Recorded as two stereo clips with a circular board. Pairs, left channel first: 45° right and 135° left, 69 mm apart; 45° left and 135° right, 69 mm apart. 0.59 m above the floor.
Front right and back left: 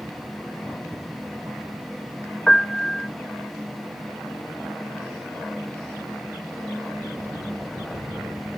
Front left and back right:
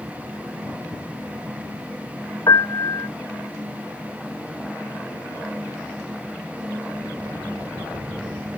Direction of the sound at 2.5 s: 35° left.